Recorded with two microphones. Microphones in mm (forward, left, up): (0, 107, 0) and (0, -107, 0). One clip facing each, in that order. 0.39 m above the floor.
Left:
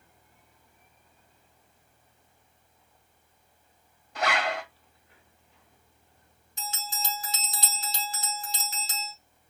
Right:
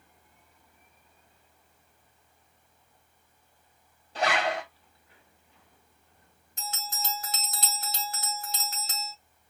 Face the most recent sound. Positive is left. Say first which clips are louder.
# left 1 dB
turn(degrees=-55)  # may be behind; listen again after turning